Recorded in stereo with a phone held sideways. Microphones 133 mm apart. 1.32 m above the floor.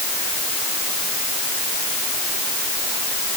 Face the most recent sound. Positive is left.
No sound to turn to.